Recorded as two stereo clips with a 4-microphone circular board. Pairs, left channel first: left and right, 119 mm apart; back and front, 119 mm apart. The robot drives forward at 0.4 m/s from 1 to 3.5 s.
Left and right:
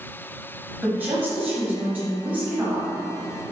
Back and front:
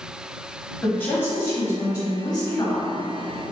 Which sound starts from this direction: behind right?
A woman speaking, at 0.8 s.